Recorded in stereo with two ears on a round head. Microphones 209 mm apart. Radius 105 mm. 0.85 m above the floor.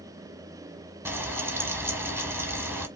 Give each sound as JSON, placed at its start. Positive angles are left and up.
{"t": 1.1, "sound": "frying", "side_deg": -10, "distance_m": 0.9}